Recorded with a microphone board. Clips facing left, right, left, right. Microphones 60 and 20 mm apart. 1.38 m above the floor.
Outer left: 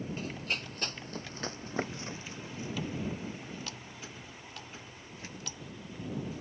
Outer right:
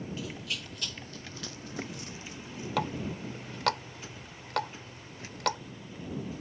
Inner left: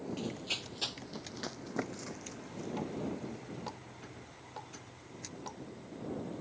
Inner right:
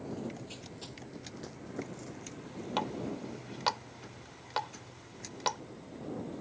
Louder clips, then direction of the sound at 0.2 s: Outer left 2 dB, inner left 4 dB; 45° left (ahead or behind).